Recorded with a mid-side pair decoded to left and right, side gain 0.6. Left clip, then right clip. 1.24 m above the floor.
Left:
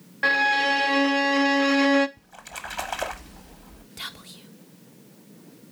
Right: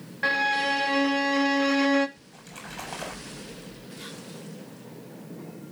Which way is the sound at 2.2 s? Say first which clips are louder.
Left 6 dB; 50° left.